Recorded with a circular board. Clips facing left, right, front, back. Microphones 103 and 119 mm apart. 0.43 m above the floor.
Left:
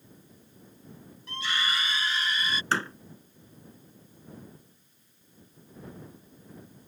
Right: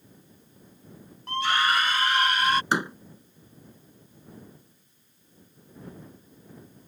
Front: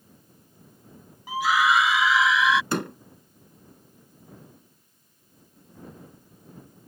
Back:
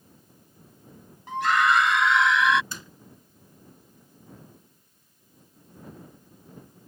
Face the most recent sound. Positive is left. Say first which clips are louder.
# right 3 dB, front 16 dB
turn(degrees=-15)